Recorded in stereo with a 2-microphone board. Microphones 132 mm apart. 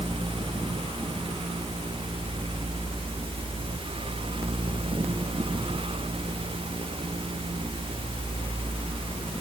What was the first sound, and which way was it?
Only background noise.